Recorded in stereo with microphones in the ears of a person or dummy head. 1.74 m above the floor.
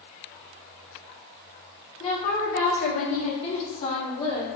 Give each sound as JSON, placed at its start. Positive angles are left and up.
{"t": 2.0, "sound": "a woman speaking", "side_deg": 35, "distance_m": 0.8}